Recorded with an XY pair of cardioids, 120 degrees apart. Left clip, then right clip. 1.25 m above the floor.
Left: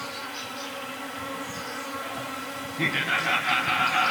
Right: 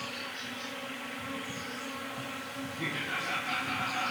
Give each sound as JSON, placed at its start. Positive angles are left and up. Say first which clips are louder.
{"t": 0.0, "sound": "an insect", "louder": "left 4 dB", "azimuth_deg": 70, "distance_m": 2.5}
{"t": 2.8, "sound": "laughter", "louder": "left 10 dB", "azimuth_deg": 60, "distance_m": 0.7}